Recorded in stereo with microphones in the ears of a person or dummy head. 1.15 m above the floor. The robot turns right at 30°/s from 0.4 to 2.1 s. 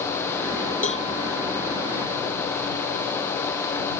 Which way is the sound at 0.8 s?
40° left (ahead or behind).